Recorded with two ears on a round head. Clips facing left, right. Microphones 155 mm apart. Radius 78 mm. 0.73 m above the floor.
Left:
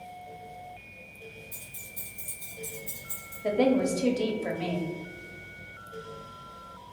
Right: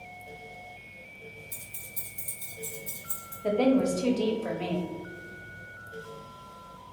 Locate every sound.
1.5 s keys jangling: 85° right, 1.3 m; by 3.3 s 75° right (ahead or behind), 2 m
3.4 s a woman speaking: 5° left (ahead or behind), 0.6 m